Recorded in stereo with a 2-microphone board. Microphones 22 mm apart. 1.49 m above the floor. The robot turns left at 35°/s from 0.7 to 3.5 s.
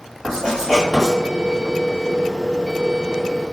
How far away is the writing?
About 1.8 m.